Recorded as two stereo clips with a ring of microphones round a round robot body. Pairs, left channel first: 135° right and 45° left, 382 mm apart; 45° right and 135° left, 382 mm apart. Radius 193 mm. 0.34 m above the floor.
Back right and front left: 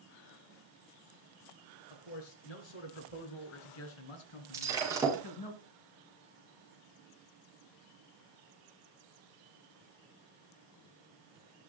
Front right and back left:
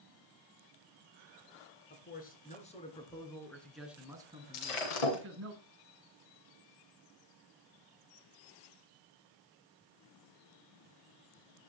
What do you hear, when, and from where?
1.9 s a man speaking: 110° right, 5 m; by 5.5 s 170° right, 3.5 m
4.5 s breaking glass: 35° right, 8 m